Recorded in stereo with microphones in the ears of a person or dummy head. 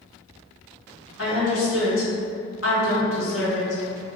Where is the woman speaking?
70° left (ahead or behind), 1.7 m.